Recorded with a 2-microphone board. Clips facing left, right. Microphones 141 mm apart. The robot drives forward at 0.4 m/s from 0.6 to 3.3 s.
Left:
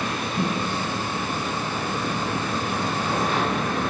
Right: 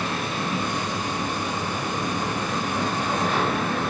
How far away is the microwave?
About 8.5 m.